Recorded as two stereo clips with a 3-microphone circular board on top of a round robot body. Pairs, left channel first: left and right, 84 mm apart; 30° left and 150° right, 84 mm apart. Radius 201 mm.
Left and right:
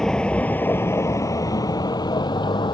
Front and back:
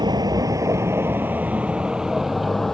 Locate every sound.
0.0 s a vehicle: 175° left; by 2.7 s 115° left